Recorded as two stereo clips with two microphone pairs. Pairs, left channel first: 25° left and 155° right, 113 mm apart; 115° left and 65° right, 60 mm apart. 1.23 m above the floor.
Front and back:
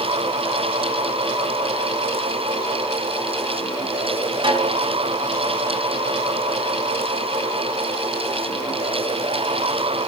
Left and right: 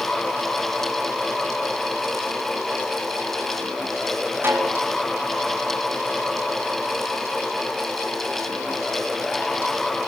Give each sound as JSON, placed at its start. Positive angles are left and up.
{"t": 4.4, "sound": "a snare drum", "azimuth_deg": -110, "distance_m": 7.0}